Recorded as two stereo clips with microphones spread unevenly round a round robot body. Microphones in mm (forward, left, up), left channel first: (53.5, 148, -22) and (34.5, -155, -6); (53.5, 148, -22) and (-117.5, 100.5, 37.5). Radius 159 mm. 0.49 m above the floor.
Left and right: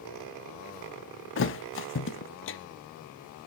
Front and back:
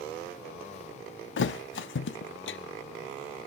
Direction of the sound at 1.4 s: 35° left.